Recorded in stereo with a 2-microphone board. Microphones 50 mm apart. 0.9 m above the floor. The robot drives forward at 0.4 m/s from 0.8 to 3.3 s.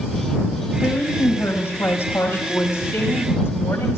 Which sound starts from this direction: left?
A woman speaking, at 0.8 s.